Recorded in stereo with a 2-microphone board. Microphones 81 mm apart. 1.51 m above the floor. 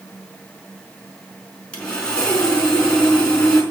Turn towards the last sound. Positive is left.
turn(degrees=15)  # may be behind; listen again after turning